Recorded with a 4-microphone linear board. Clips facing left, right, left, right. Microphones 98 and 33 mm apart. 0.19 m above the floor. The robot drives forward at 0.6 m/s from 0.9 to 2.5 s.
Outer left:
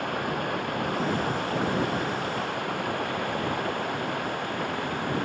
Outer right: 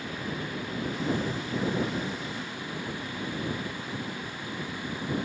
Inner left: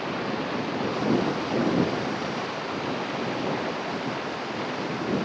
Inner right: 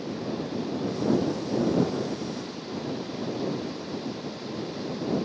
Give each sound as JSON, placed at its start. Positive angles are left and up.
{"t": 0.0, "sound": "running water", "side_deg": 60}